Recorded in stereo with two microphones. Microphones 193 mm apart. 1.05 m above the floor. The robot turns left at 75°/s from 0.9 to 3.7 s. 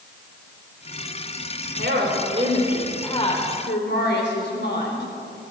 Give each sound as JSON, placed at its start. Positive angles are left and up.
{"t": 1.8, "sound": "a woman speaking", "azimuth_deg": -100, "distance_m": 4.0}